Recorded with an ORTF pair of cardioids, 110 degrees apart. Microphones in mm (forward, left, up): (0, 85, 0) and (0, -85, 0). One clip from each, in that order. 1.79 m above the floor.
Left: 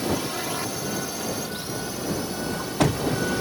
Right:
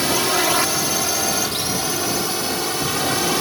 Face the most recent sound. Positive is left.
turn(degrees=-65)